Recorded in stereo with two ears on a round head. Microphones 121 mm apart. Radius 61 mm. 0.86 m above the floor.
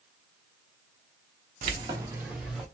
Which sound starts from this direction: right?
Keys jangling, at 1.6 s.